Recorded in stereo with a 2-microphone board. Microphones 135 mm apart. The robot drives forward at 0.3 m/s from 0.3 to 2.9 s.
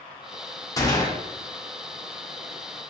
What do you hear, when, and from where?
0.8 s a gunshot: 25° left (ahead or behind), 0.8 m